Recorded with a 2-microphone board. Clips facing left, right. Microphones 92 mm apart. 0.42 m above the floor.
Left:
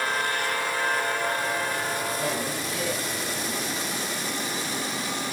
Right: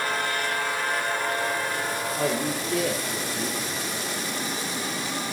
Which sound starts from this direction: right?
A man speaking, at 2.2 s.